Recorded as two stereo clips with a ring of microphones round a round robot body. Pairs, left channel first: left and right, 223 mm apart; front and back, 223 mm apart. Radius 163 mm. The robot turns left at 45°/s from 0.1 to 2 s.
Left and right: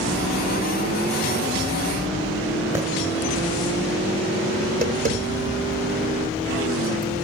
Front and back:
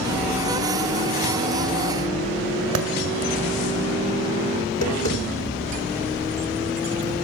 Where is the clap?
170° right, 2 m.